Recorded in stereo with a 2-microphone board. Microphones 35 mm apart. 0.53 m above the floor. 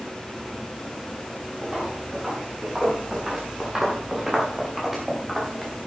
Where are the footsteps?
15° right (ahead or behind), 7.5 m; by 5.7 s 5° right (ahead or behind), 3.5 m.